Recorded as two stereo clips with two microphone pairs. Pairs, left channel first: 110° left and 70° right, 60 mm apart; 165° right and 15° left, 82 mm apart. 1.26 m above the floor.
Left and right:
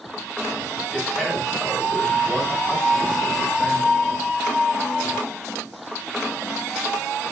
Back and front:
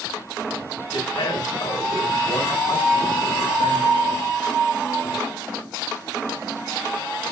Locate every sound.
0.9 s a man speaking: 160° right, 7.5 m